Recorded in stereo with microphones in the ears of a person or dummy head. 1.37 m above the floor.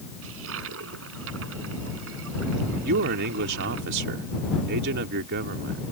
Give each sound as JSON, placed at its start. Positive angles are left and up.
{"t": 0.2, "sound": "a toilet flushing", "side_deg": -70}
{"t": 2.8, "sound": "a man speaking", "side_deg": -65}